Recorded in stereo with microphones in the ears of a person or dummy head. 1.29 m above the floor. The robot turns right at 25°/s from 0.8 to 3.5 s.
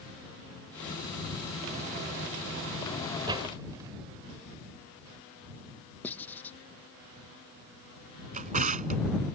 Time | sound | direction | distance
3.3 | a door slam | 25° right (ahead or behind) | ?
6.0 | writing | 10° left (ahead or behind) | ?
8.3 | a drawer | 40° right (ahead or behind) | ?